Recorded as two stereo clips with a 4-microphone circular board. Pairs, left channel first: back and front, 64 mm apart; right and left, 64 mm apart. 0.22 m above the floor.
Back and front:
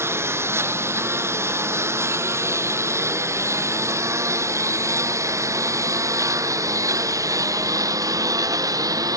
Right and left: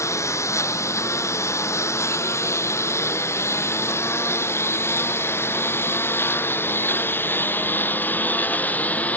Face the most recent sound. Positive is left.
turn(degrees=-25)